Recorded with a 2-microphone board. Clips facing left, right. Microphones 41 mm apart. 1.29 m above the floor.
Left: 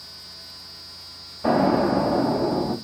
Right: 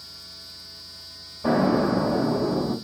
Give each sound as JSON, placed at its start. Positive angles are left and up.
{"t": 1.4, "sound": "an explosion", "side_deg": 15, "distance_m": 2.0}